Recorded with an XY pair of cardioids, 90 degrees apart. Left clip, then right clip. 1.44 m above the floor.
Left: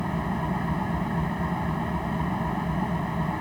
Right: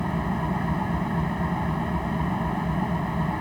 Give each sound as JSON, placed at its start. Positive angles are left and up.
{"t": 0.0, "sound": "an engine running", "azimuth_deg": -15}